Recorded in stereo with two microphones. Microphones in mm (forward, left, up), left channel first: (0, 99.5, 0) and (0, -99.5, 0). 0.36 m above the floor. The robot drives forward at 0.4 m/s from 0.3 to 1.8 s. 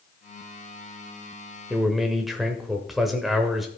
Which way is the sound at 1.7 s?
Centre (ahead or behind).